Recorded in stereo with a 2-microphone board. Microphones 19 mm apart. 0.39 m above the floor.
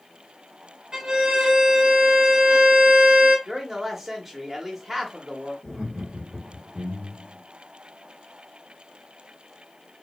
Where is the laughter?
45° right (ahead or behind), 2.5 m.